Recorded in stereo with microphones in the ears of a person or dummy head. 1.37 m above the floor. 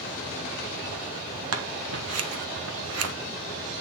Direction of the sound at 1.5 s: 80° right.